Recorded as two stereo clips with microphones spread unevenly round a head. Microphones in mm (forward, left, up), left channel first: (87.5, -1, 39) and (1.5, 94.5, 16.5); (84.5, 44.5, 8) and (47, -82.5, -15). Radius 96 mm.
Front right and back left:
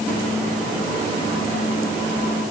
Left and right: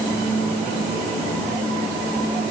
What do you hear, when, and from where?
Only background noise.